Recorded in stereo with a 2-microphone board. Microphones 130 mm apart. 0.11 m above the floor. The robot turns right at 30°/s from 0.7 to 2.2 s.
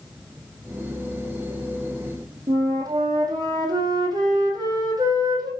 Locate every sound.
2.5 s a flute: 30° right (ahead or behind), 1.6 m